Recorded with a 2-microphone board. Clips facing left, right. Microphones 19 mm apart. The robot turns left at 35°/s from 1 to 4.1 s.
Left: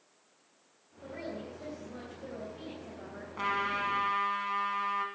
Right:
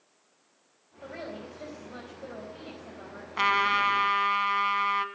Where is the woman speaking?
85° right, 4 m; by 3.3 s 160° right, 4 m.